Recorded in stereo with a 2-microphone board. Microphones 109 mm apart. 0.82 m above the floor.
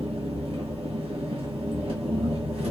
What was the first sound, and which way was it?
An engine running, 60° right (ahead or behind).